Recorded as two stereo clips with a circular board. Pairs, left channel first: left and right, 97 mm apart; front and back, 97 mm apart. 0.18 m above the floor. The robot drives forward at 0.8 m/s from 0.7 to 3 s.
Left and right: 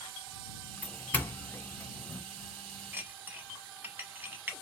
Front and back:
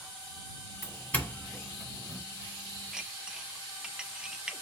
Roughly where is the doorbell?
Ahead left.